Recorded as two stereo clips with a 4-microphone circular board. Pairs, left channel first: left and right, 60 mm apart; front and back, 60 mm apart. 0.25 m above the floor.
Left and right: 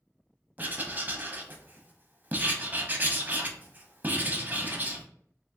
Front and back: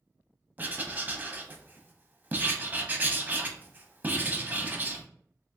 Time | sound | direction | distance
0.6 | writing | 135° right | 0.6 m